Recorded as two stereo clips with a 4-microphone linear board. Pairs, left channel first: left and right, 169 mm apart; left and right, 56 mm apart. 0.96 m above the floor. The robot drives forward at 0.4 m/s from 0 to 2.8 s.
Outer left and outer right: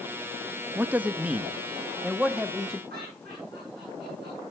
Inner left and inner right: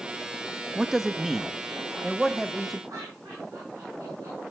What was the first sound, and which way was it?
A man speaking, 10° right (ahead or behind).